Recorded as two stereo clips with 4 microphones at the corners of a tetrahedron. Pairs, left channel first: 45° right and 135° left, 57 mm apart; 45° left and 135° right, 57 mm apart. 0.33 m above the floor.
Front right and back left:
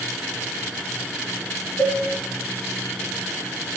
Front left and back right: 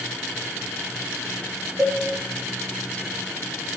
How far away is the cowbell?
About 1.3 m.